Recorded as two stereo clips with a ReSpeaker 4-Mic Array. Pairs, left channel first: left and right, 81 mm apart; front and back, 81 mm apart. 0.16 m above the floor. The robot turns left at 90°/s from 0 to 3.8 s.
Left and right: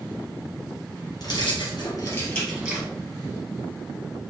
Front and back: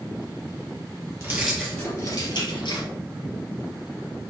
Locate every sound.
1.2 s keys jangling: 115° left, 2.5 m; by 2.9 s 35° right, 2.5 m